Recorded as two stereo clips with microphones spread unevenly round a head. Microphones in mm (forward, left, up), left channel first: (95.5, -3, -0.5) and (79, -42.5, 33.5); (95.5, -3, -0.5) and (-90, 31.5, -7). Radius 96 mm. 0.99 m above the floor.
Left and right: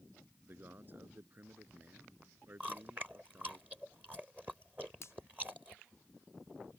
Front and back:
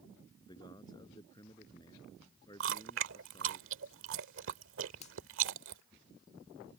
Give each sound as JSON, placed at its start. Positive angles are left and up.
{"t": 0.4, "sound": "a man speaking", "azimuth_deg": -80}
{"t": 2.6, "sound": "chewing", "azimuth_deg": -170}
{"t": 5.0, "sound": "a finger snap", "azimuth_deg": 45}